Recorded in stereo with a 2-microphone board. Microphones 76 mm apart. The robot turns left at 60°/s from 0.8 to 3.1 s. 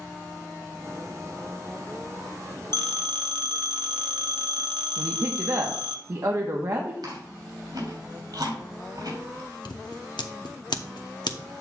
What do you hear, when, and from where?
2.7 s a phone ringing: 65° right (ahead or behind), 1.2 m; by 6.0 s 85° right, 1.2 m
5.0 s a woman speaking: 50° right (ahead or behind), 1.1 m
7.0 s chewing: 70° right (ahead or behind), 3 m
9.7 s scissors: 85° left, 0.9 m